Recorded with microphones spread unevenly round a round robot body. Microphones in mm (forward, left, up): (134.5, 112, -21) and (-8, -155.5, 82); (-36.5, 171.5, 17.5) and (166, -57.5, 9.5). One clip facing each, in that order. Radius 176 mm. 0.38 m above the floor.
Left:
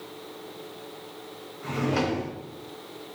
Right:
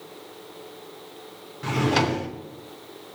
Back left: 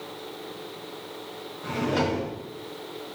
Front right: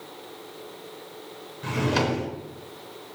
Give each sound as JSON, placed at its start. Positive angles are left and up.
{"t": 1.6, "sound": "a drawer", "azimuth_deg": -85, "distance_m": 0.8}